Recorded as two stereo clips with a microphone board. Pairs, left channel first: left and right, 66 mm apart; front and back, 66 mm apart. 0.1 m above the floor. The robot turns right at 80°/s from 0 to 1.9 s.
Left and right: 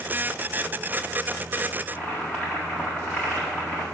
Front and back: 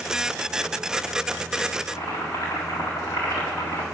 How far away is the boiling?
About 4 m.